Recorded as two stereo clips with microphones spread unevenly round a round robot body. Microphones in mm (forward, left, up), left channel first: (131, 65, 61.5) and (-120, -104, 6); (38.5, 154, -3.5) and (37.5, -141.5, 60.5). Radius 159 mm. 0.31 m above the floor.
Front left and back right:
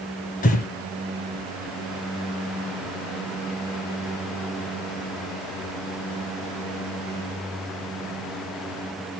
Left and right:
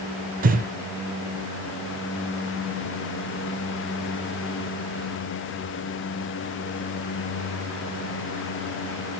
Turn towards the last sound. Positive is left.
turn(degrees=-30)